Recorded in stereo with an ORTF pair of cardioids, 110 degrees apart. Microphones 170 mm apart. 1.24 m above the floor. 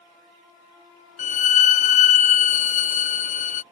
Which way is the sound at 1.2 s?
50° left.